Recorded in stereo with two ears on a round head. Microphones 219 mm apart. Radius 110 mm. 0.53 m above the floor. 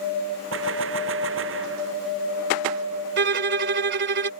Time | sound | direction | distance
0.5 | a gunshot | 55° right (ahead or behind) | ?
3.2 | a violin | 45° right (ahead or behind) | ?